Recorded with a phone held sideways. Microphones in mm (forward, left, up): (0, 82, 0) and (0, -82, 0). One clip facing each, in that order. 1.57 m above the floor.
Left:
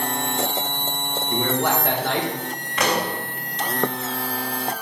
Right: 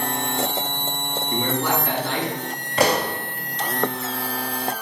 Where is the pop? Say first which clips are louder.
Right 3 dB; 35° right (ahead or behind), 1.5 m.